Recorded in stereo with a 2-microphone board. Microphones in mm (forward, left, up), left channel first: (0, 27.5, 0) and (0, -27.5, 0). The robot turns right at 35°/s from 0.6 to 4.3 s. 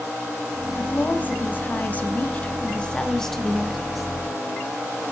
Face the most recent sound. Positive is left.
turn(degrees=-160)